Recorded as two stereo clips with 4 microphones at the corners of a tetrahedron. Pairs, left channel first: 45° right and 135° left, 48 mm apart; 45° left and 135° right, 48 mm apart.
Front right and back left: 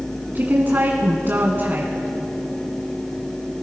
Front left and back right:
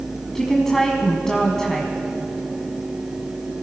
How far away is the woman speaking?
About 1.4 m.